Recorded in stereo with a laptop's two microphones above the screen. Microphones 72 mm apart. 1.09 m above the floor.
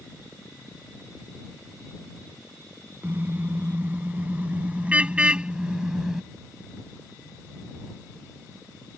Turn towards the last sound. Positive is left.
turn(degrees=-5)  # may be behind; listen again after turning